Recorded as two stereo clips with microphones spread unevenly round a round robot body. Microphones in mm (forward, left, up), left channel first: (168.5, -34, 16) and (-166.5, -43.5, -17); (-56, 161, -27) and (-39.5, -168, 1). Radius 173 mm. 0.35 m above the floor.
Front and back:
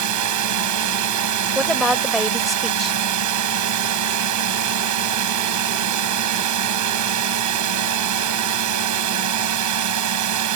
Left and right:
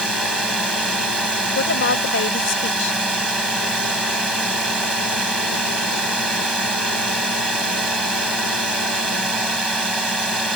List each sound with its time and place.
0.0 s a drone: 175° right
1.6 s a woman speaking: 100° left